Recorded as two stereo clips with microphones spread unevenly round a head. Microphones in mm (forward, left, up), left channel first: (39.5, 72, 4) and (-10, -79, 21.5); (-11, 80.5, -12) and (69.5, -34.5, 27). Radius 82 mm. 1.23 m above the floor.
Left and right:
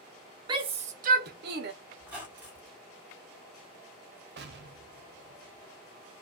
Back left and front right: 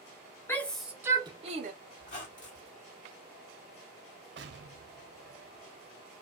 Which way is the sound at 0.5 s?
175° right.